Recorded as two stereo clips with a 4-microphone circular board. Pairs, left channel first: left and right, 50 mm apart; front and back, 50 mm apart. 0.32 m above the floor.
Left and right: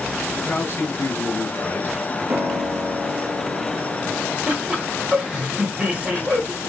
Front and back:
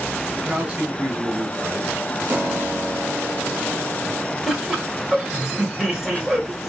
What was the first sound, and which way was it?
A man speaking, 120° left.